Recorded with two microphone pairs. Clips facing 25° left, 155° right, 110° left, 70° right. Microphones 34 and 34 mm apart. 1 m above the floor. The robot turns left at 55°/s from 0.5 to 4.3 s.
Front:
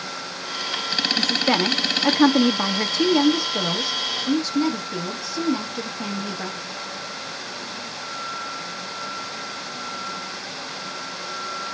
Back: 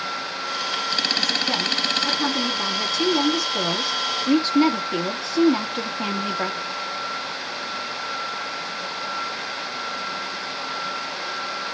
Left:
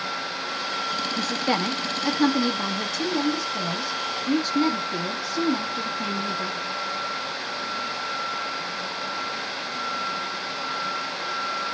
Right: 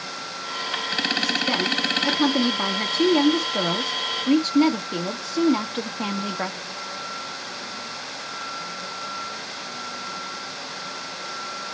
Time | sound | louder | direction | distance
1.2 | a woman speaking | front 2 dB, even | 75° left | 0.9 m